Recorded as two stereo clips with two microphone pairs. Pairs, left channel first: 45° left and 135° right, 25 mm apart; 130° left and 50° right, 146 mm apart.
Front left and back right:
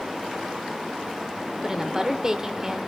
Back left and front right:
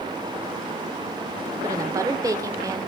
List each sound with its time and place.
1.6 s a woman speaking: 90° right, 1.3 m